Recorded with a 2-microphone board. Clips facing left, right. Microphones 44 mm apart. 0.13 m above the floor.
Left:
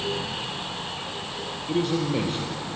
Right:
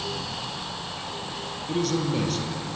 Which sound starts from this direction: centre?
A man speaking, at 1.7 s.